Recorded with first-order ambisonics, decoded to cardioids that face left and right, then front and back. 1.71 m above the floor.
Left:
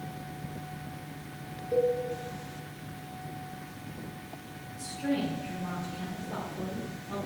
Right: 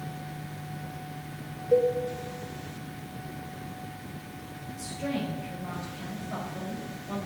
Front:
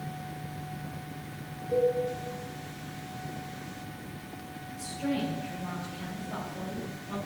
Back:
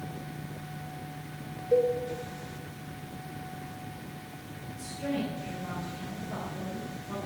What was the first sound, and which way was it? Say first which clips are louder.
A cowbell: right 4 dB, back 2 dB; 120° right.